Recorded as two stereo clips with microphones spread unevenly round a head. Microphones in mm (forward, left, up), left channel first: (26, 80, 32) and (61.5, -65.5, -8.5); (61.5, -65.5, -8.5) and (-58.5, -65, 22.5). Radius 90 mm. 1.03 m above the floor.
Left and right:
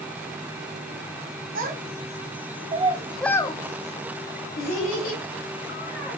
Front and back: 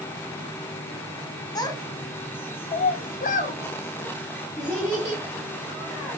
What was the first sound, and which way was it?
A child speaking, 55° right.